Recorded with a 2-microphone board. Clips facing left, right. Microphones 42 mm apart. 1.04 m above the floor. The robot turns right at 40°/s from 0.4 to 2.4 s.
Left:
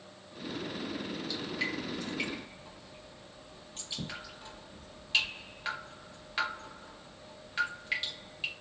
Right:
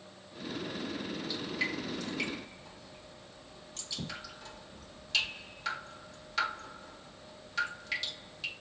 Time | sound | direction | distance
1.3 | dripping | 20° right (ahead or behind) | 1.6 m